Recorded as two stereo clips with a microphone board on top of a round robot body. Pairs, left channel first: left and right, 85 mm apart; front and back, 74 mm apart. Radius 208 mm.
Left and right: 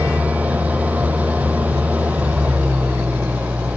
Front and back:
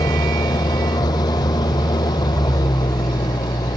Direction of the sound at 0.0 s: 20° right.